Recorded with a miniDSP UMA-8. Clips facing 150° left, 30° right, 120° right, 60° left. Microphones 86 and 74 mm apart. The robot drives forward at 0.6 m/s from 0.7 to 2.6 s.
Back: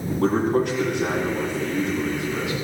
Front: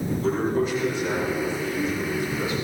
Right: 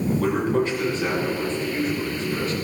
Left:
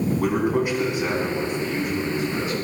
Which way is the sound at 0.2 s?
135° left.